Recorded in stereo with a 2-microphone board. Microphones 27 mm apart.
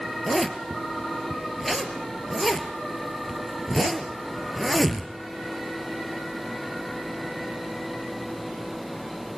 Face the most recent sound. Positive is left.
turn(degrees=0)  # may be behind; listen again after turning